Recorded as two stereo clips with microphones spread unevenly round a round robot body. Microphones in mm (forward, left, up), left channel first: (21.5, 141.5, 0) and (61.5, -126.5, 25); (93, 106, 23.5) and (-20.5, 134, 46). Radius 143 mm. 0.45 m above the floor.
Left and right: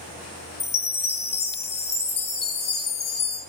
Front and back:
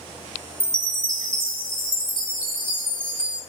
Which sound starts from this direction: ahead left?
A chime, at 0.6 s.